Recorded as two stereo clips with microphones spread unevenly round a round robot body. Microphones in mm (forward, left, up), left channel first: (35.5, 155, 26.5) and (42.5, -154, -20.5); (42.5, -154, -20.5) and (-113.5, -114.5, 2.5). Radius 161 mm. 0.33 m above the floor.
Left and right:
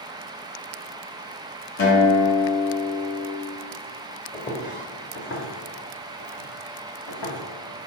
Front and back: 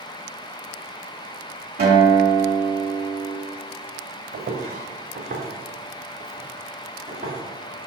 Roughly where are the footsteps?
Behind.